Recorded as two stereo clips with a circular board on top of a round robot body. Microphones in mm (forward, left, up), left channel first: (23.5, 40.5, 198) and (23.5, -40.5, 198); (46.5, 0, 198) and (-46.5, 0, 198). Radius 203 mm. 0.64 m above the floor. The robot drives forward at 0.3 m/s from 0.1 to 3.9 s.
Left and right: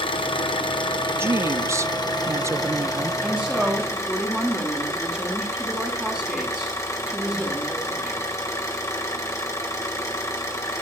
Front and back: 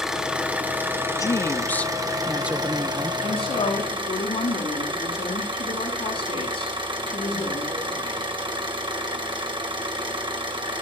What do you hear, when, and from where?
0.0 s an engine running: 95° left, 0.9 m; by 10.8 s 145° left, 1.5 m
1.2 s a woman speaking: 40° right, 0.6 m; by 3.1 s 140° right, 0.6 m
3.2 s a woman speaking: 5° left, 6 m